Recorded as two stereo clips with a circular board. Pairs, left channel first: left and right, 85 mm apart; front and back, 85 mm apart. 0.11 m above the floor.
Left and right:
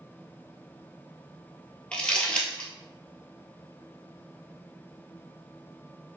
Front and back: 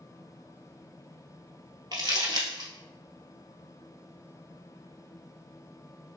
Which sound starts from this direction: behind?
Crumpling, at 1.9 s.